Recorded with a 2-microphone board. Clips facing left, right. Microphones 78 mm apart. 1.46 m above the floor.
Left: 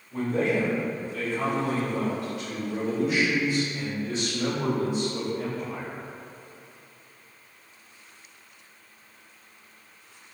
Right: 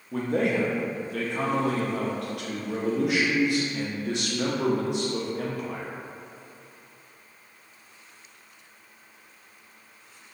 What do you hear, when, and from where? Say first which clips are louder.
0.1 s a man speaking: even; 65° right (ahead or behind), 0.8 m